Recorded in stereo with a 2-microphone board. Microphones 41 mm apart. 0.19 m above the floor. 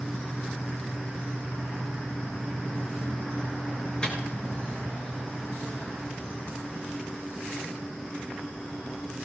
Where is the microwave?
20° left (ahead or behind), 2.5 m.